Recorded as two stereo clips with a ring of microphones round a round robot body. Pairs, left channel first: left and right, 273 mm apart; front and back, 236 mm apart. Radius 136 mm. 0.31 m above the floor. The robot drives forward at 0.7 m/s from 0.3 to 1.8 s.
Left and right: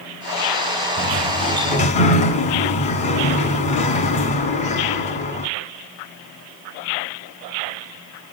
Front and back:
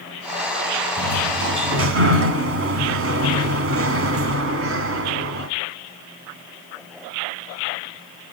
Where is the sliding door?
145° left, 1.4 m; by 5.5 s 155° left, 1.9 m.